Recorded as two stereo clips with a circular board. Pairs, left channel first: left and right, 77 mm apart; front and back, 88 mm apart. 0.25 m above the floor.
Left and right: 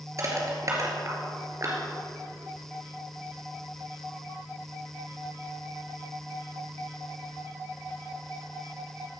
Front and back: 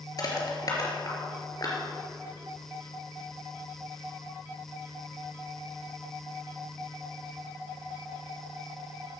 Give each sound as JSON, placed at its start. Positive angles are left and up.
{"t": 0.2, "sound": "crushing", "azimuth_deg": -45, "distance_m": 3.0}